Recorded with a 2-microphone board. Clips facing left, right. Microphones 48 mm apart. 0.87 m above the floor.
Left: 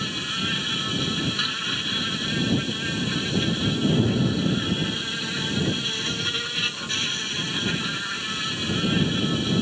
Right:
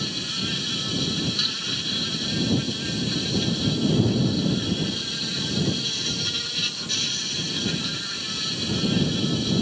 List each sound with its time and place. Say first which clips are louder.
0.0 s an insect: left 2 dB; 30° left (ahead or behind)